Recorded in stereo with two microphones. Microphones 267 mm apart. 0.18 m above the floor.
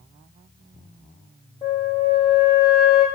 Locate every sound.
1.6 s a flute: 25° left (ahead or behind), 3.5 m